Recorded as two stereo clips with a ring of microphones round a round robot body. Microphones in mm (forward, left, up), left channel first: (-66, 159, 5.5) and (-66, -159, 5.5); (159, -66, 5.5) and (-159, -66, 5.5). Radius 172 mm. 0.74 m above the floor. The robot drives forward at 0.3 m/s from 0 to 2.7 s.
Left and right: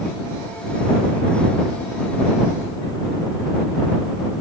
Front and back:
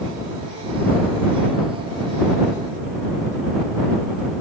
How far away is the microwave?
No microwave in this recording.